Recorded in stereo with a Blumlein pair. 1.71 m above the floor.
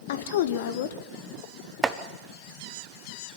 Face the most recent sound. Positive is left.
turn(degrees=-10)